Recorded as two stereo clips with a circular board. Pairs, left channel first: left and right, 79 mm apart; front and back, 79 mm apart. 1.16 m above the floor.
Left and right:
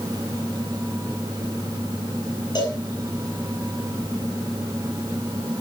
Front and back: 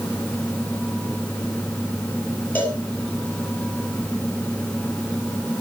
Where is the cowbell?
70° left, 7.5 m.